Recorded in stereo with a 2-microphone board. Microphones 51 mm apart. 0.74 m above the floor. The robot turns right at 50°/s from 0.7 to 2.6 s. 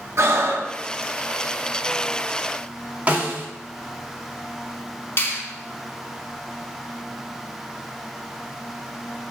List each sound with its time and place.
0.2 s breathing: 60° right (ahead or behind), 1.1 m
3.1 s a snare drum: 30° right (ahead or behind), 1.3 m
5.2 s a finger snap: 45° left (ahead or behind), 1.8 m